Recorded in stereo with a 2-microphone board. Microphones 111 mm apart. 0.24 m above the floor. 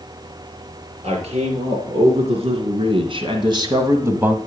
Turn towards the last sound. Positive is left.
turn(degrees=-10)  # may be behind; listen again after turning